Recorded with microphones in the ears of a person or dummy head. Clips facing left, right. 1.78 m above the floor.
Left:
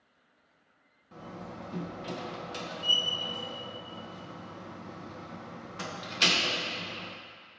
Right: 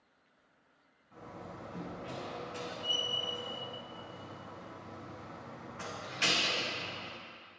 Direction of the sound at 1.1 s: 60° left (ahead or behind).